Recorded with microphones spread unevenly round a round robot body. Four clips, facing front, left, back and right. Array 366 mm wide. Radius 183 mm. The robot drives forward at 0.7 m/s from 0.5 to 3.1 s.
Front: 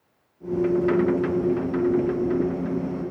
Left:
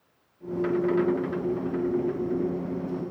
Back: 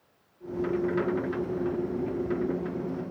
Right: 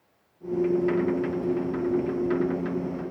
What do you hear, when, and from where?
Only background noise.